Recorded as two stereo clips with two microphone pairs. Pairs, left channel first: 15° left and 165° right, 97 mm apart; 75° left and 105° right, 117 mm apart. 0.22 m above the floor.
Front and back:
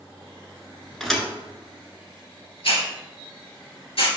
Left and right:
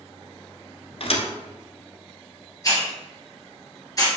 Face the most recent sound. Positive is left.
turn(degrees=20)